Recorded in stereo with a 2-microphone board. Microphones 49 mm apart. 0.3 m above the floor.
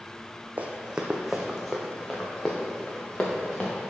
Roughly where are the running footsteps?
Right.